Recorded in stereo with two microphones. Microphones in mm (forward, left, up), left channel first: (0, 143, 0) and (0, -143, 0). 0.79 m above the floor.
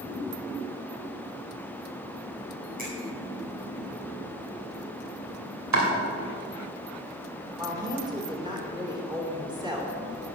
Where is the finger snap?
30° right (ahead or behind), 5 m.